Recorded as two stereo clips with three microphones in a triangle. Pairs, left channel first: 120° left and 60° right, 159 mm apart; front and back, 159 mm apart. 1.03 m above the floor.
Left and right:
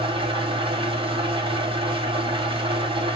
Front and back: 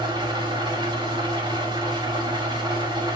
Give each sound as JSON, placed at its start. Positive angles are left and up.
{"t": 0.0, "sound": "an engine running", "azimuth_deg": -120, "distance_m": 0.8}